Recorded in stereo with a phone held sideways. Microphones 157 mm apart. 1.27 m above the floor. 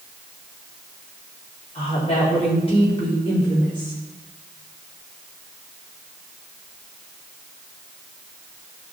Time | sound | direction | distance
1.8 | a woman speaking | 45° left (ahead or behind) | 4 m